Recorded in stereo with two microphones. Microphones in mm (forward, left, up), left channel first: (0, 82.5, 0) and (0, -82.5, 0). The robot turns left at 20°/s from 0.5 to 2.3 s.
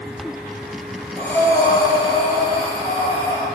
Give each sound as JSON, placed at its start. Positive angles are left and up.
{"t": 1.2, "sound": "breathing", "side_deg": 15, "distance_m": 0.5}